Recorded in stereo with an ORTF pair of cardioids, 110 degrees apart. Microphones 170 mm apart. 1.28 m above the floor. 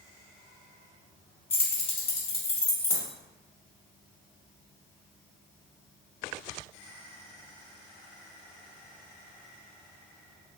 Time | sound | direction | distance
1.5 | keys jangling | 35° left | 0.9 m